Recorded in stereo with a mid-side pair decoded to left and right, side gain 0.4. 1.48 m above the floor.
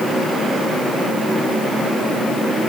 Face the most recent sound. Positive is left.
No sound to turn to.